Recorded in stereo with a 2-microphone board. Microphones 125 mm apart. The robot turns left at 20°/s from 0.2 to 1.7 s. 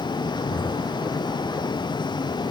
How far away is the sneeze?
No sneeze in this recording.